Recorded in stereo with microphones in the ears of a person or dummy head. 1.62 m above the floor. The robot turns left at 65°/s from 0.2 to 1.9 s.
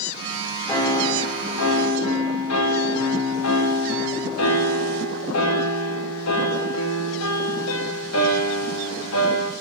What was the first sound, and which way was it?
A piano, 170° left.